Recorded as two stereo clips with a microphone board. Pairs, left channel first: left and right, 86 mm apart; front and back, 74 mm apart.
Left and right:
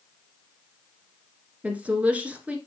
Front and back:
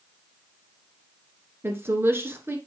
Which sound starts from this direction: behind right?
A woman speaking, at 1.6 s.